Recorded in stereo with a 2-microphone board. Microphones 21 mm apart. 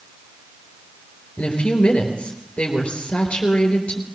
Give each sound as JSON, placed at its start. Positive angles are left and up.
{"t": 1.4, "sound": "a woman speaking", "side_deg": 75, "distance_m": 4.0}